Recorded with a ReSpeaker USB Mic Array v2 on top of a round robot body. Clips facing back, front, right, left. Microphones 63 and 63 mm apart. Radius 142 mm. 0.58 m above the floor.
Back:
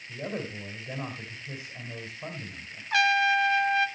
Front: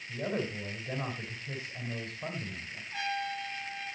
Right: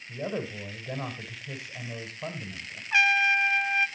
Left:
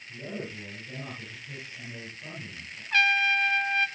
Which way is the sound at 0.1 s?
85° right.